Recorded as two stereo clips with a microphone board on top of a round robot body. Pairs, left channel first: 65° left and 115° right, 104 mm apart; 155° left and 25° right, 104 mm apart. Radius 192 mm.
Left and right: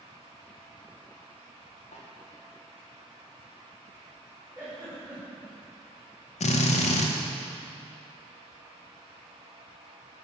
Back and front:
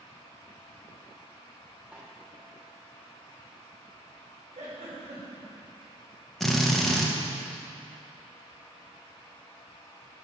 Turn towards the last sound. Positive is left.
turn(degrees=70)